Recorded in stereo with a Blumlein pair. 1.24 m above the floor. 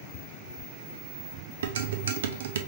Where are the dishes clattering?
60° right, 0.6 m.